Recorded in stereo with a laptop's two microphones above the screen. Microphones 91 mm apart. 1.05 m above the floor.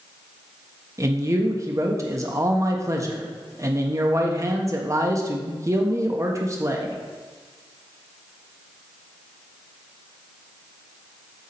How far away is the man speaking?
About 1.2 m.